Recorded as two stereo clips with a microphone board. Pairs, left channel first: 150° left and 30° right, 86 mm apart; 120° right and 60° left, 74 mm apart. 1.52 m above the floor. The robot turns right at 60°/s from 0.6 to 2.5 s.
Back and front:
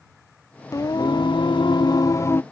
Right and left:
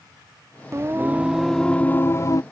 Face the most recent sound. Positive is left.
turn(degrees=-150)